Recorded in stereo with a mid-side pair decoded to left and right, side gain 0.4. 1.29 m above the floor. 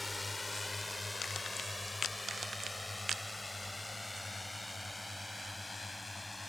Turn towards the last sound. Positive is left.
turn(degrees=10)